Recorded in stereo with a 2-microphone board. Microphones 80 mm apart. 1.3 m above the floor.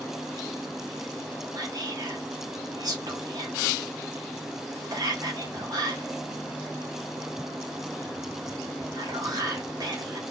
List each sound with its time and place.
1.5 s whispering: 50° right (ahead or behind), 1.2 m